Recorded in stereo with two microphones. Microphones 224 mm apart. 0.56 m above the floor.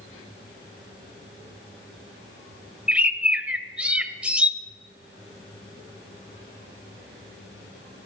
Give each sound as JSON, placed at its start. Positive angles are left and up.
{"t": 2.9, "sound": "a bird", "side_deg": -5, "distance_m": 0.6}